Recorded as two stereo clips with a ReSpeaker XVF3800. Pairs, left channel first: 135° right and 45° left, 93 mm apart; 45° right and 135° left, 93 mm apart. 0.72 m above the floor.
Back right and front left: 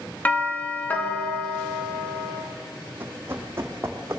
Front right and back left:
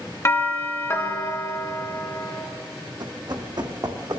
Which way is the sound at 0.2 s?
80° right.